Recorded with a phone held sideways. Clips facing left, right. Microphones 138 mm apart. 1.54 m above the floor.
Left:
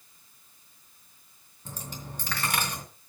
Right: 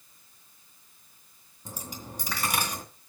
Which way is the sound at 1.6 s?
10° right (ahead or behind).